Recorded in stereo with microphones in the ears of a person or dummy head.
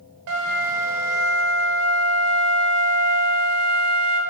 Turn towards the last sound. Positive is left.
turn(degrees=-65)  # may be behind; listen again after turning